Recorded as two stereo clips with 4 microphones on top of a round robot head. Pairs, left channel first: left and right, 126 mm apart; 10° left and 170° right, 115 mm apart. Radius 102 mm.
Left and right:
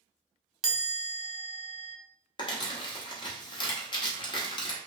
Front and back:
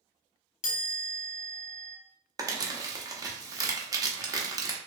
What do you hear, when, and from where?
0.6 s a chime: 5° right, 0.6 m
2.4 s crumpling: 135° left, 0.8 m